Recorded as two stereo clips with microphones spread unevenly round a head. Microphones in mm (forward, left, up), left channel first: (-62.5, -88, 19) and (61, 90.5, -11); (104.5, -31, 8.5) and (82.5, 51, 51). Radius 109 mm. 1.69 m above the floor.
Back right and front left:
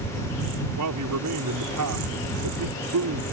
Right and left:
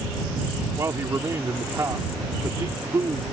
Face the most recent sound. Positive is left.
turn(degrees=55)